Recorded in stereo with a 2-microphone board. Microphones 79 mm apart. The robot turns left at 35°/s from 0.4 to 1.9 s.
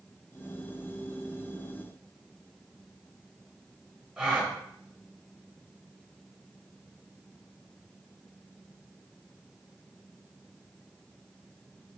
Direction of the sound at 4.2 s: 10° right (ahead or behind).